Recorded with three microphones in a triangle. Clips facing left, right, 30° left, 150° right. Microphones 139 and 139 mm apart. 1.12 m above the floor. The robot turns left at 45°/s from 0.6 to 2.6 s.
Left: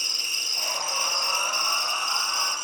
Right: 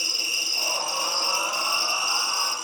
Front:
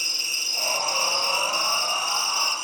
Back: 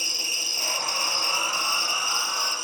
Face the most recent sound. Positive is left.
turn(degrees=100)